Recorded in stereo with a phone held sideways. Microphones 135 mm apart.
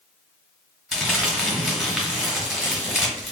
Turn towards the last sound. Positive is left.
turn(degrees=-5)  # may be behind; listen again after turning